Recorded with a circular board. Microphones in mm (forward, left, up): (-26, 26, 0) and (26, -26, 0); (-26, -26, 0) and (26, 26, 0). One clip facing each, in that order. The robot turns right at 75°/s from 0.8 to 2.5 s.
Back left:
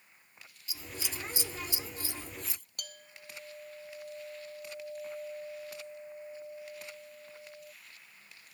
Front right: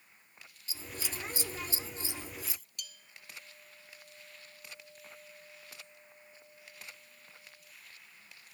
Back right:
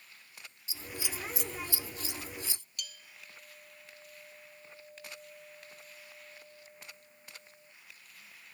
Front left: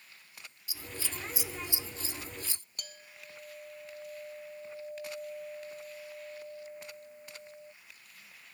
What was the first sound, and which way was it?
Scissors, 85° right.